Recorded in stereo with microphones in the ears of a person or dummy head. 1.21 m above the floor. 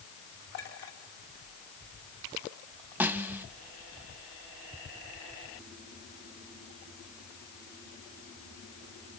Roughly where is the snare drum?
Centre.